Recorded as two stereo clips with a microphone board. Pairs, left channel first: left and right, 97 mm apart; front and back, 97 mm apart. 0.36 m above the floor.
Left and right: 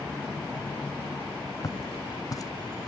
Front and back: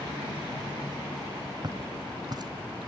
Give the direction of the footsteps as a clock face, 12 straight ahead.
7 o'clock.